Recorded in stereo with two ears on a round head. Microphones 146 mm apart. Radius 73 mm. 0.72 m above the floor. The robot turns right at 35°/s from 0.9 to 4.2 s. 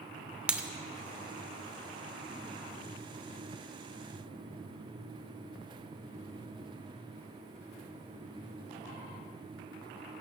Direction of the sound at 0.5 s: 10° right (ahead or behind).